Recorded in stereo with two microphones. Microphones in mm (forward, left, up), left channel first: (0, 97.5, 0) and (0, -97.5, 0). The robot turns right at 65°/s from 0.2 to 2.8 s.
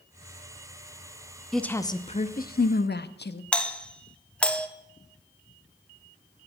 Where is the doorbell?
5° left (ahead or behind), 0.8 m.